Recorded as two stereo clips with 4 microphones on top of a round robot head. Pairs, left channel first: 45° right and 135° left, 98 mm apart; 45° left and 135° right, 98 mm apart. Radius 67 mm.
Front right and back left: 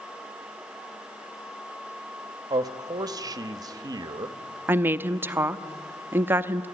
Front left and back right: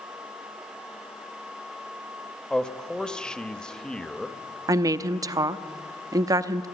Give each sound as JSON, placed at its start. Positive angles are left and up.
{"t": 2.5, "sound": "a man speaking", "azimuth_deg": 120, "distance_m": 0.9}
{"t": 4.7, "sound": "a woman speaking", "azimuth_deg": -165, "distance_m": 0.7}